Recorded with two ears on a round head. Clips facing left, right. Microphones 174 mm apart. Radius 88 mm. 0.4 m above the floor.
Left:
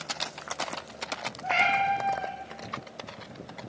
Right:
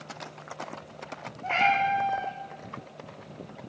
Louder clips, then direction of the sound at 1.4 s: Right 1 dB; 15° left (ahead or behind).